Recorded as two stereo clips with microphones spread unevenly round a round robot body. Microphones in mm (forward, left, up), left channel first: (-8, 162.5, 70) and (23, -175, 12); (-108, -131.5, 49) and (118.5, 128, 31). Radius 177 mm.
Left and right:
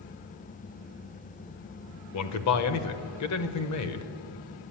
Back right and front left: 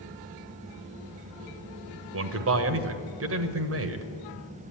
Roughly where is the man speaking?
Ahead left.